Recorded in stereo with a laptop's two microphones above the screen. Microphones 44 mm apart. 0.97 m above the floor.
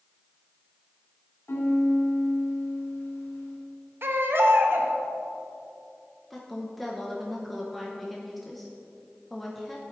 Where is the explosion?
I don't hear an explosion.